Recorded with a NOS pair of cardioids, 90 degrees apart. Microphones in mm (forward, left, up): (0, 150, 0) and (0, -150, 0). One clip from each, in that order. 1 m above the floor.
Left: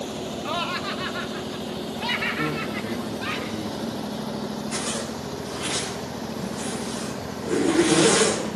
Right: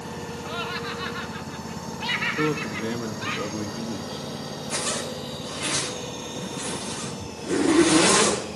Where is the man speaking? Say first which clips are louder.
Right 1 dB; 35° right, 1.2 m.